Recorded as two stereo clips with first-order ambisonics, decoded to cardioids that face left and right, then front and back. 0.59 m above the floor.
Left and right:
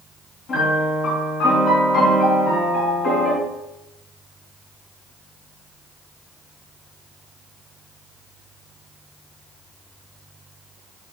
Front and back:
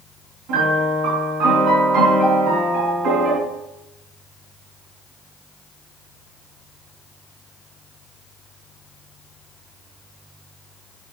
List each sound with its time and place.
0.5 s a piano: 140° left, 3.5 m